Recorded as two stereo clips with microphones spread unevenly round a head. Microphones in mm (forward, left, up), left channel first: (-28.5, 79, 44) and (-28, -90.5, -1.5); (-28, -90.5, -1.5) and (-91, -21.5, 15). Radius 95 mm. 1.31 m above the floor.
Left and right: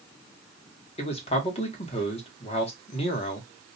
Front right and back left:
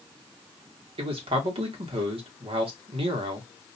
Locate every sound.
1.0 s a man speaking: 145° left, 1.0 m